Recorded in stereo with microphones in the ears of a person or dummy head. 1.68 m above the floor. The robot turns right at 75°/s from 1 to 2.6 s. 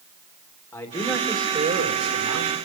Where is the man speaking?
170° left, 3 m; by 2.5 s 75° right, 3 m.